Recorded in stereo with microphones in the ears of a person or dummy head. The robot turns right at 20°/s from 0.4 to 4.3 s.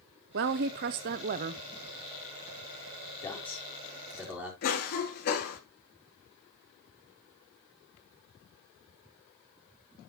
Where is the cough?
55° left (ahead or behind), 3 m.